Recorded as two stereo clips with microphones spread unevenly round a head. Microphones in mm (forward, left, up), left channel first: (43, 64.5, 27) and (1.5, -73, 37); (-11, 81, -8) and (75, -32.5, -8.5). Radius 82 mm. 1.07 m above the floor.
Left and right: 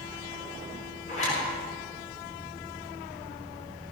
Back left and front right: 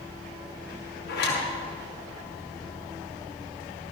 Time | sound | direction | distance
1.1 | a zipper | 125° left | 6 m